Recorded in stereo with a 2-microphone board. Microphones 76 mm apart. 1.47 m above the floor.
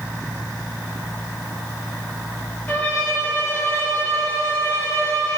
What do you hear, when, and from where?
2.7 s a violin: 25° left (ahead or behind), 1.1 m